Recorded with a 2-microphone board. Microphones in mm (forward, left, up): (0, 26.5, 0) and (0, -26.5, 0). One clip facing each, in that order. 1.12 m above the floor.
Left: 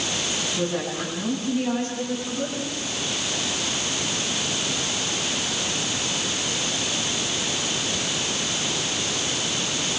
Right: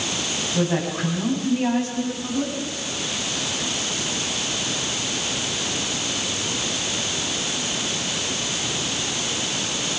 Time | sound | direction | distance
0.6 | a woman speaking | 70° right (ahead or behind) | 8.5 m